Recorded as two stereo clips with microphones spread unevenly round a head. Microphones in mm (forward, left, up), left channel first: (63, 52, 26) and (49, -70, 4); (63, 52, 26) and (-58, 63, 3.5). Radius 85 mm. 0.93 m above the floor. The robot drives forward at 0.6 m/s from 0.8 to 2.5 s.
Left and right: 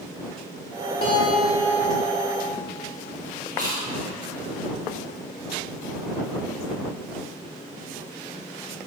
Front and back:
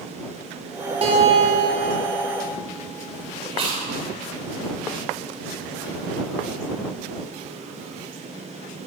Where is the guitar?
145° left, 2.0 m; by 2.4 s 155° left, 2.5 m.